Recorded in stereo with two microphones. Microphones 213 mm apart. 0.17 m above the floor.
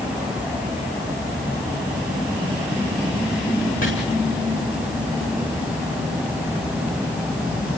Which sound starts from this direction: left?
Chopping, at 3.8 s.